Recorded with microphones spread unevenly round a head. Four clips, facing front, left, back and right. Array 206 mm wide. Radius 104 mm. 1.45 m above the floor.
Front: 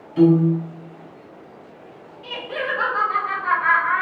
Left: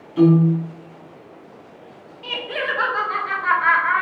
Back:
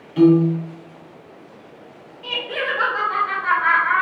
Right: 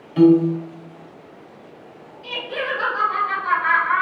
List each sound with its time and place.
0.2 s a piano: 110° right, 1.3 m
2.2 s laughter: 125° left, 1.2 m